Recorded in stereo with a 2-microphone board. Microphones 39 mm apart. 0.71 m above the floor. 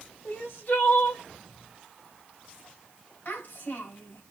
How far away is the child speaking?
About 2.5 m.